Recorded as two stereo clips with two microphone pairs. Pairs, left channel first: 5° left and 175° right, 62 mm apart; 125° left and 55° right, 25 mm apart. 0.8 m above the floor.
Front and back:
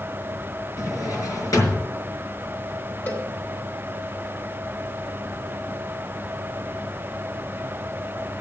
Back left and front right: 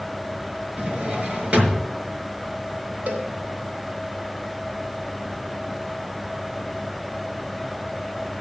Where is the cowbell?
50° right, 4 m.